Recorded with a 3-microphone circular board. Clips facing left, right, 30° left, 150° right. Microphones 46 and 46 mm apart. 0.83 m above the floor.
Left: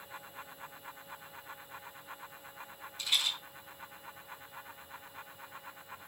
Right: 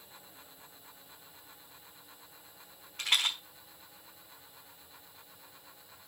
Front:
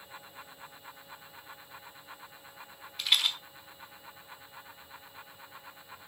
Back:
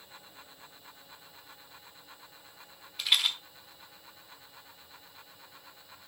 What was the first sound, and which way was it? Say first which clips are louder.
A rattle: right 3 dB, even; 65° right.